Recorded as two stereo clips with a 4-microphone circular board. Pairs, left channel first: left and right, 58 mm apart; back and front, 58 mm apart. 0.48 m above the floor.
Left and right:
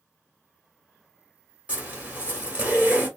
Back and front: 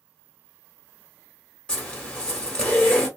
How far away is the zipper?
About 1.0 m.